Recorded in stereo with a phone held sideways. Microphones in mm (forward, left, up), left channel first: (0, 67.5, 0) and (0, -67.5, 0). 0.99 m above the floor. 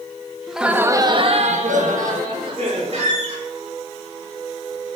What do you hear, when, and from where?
0.5 s laughter: centre (ahead or behind), 1.0 m; by 3.1 s 70° right (ahead or behind), 2 m
2.9 s a squeak: 65° right (ahead or behind), 4 m